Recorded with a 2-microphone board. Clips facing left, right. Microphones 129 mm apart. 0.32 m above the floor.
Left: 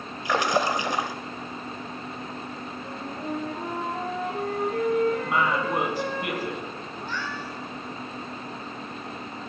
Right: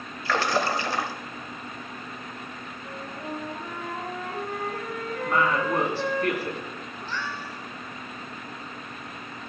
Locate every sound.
0.2 s a splash: 15° left (ahead or behind), 1.1 m
2.8 s a flute: 85° left, 6 m
5.2 s a woman speaking: 15° left (ahead or behind), 3 m
7.0 s a cat meowing: 55° left (ahead or behind), 3.5 m